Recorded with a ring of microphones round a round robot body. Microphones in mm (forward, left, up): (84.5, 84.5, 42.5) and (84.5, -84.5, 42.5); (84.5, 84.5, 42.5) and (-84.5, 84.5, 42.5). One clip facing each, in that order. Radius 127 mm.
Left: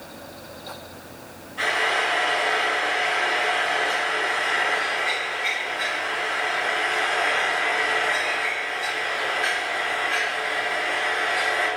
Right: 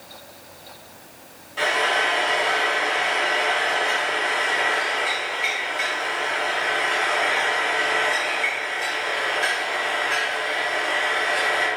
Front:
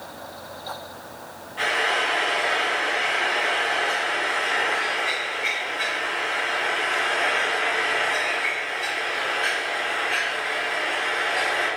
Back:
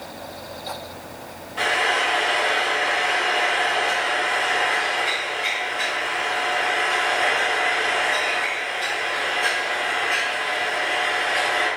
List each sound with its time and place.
1.6 s frying: 125° right, 3 m